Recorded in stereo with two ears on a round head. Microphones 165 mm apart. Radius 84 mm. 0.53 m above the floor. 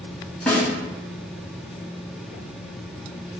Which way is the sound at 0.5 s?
5° left (ahead or behind).